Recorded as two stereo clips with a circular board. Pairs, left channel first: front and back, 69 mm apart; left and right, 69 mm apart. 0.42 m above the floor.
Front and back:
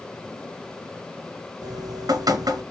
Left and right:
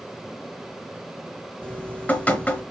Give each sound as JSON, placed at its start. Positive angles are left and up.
{"t": 1.6, "sound": "dripping", "azimuth_deg": 155, "distance_m": 2.5}